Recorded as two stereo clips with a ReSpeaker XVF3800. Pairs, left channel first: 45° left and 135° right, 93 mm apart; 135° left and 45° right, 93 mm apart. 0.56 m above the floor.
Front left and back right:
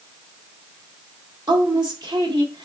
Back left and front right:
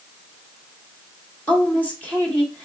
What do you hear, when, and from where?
1.5 s a woman speaking: 155° right, 1.7 m